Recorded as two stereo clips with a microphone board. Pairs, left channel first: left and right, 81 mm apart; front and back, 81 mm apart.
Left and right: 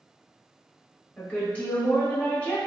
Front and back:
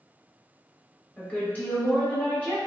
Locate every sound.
1.2 s a woman speaking: 45° left, 0.9 m